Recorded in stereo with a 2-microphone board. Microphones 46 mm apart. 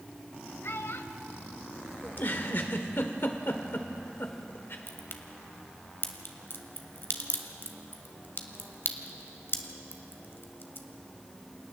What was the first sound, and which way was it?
A child speaking, 65° left (ahead or behind).